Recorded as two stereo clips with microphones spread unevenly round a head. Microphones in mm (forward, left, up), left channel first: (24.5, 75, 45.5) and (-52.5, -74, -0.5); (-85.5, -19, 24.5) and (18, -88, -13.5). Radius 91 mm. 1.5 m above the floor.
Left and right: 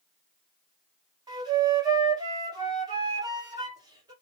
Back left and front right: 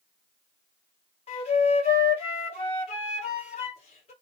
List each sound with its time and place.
1.3 s a flute: 175° left, 1.4 m